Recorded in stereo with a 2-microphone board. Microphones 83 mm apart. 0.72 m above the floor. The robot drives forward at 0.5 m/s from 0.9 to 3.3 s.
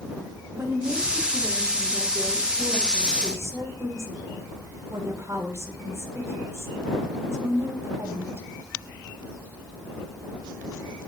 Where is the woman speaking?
30° right (ahead or behind), 5.5 m; by 8.4 s 35° right (ahead or behind), 4.5 m.